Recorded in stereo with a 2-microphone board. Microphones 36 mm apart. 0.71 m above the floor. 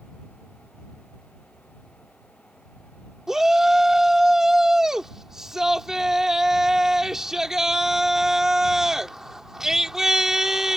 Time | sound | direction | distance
3.3 | a shout | 15° right (ahead or behind) | ?